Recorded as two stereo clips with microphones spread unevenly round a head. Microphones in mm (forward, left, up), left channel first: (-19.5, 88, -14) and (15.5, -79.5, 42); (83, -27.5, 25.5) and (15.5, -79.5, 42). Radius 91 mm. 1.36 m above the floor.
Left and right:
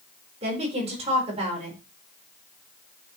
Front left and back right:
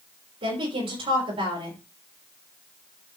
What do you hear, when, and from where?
0.4 s a woman speaking: 135° right, 5.5 m